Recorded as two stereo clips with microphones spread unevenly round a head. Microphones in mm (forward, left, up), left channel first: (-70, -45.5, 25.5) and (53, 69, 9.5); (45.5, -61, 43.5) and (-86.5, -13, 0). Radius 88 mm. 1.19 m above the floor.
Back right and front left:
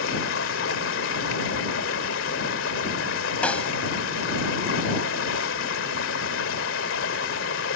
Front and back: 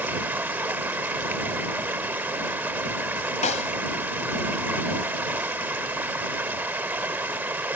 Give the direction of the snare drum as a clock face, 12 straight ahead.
2 o'clock.